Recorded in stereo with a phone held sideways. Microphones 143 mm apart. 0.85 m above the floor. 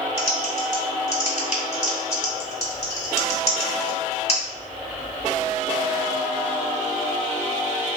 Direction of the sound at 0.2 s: 50° left (ahead or behind).